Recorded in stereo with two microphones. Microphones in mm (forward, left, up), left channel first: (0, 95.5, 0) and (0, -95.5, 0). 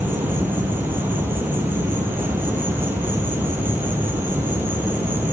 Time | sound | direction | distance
0.0 | an insect | 10° right (ahead or behind) | 1.7 m